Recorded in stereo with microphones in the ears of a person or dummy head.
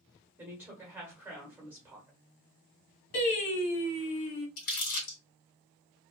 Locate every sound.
0.4 s a woman speaking: 10° right (ahead or behind), 1.2 m
3.1 s singing: 60° left (ahead or behind), 1.8 m
4.6 s crumpling: 60° left (ahead or behind), 1.7 m